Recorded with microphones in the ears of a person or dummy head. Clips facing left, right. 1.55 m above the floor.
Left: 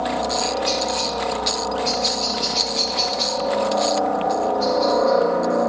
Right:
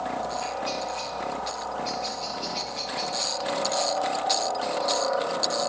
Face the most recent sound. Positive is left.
turn(degrees=65)  # may be behind; listen again after turning